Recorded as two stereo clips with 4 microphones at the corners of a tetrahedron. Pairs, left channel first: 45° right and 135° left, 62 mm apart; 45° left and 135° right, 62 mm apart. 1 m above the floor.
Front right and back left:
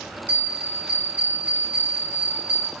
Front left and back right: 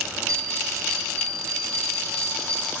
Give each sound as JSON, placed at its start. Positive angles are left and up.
{"t": 0.3, "sound": "a bell", "azimuth_deg": -170, "distance_m": 1.5}